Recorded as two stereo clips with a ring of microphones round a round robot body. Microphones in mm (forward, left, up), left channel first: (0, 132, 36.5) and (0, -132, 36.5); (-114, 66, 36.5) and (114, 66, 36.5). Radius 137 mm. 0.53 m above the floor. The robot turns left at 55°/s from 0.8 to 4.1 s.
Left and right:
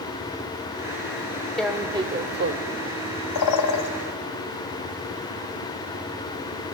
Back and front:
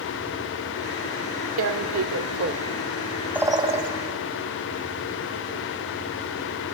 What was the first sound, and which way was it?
Tearing paper, 5° left.